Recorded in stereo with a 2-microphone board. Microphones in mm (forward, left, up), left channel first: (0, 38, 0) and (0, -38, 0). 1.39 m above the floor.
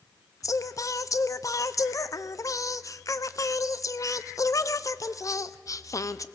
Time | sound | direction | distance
0.4 | singing | 45° left (ahead or behind) | 0.7 m